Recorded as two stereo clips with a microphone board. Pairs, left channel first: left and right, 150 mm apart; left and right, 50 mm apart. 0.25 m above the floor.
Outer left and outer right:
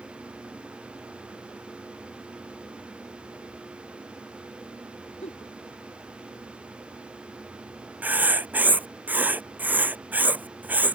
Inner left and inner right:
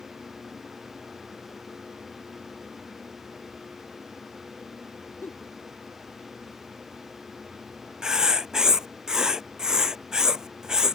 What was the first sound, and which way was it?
A giggle, 50° left (ahead or behind).